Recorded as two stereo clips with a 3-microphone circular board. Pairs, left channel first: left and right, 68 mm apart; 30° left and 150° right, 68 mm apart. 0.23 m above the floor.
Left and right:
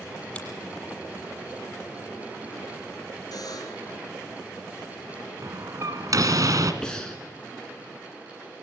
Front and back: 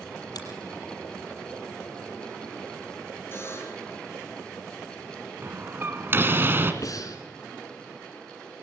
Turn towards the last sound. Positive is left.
turn(degrees=10)